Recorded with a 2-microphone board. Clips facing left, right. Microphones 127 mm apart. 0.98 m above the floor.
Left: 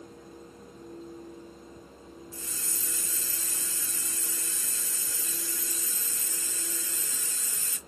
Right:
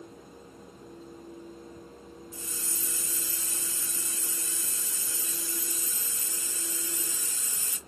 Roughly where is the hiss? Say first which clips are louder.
Right 1 dB; centre.